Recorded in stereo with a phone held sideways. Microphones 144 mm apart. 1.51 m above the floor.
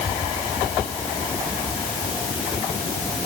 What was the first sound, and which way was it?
Only background noise.